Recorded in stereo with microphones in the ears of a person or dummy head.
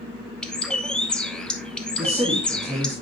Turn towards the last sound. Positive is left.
turn(degrees=-15)  # may be behind; listen again after turning